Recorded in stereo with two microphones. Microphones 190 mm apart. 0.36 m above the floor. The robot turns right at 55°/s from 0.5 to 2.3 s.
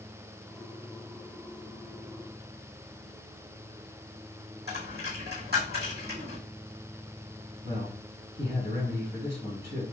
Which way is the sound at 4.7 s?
60° right (ahead or behind).